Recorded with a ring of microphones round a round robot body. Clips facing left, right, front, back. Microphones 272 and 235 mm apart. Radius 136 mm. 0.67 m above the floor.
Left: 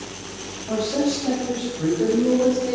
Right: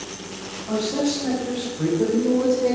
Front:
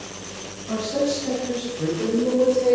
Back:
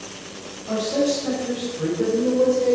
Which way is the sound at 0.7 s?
145° right.